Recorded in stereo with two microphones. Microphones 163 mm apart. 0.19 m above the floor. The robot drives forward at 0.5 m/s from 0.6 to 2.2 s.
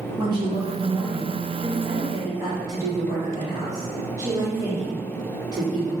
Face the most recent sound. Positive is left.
turn(degrees=-20)  # may be behind; listen again after turning